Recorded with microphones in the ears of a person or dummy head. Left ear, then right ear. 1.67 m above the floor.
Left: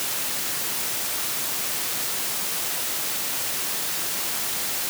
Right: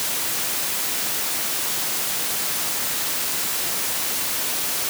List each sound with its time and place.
Only background noise.